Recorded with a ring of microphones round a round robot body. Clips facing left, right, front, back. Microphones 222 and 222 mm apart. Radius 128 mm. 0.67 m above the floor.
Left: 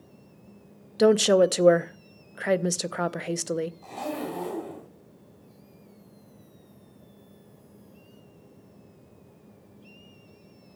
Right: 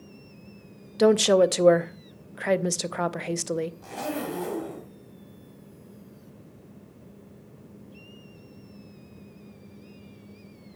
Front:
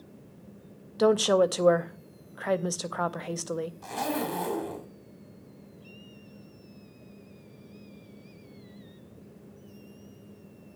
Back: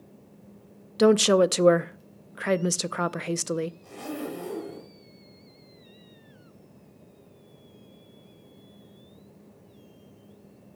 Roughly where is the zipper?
Ahead.